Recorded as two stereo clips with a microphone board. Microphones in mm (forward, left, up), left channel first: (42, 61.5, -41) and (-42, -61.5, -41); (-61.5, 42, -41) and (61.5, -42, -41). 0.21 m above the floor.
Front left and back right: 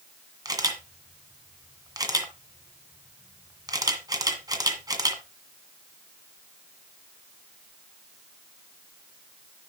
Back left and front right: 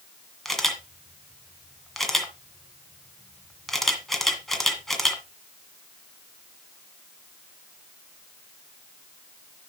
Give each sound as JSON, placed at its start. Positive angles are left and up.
{"t": 0.5, "sound": "a camera shutter", "azimuth_deg": -130, "distance_m": 1.6}